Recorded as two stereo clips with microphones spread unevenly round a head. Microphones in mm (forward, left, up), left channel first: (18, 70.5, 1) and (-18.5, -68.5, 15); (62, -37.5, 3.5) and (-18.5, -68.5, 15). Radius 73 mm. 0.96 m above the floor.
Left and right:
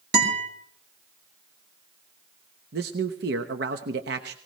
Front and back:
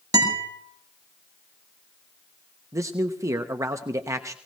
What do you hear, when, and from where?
0.1 s a guitar: 120° right, 5.5 m
2.7 s a man speaking: 105° right, 1.0 m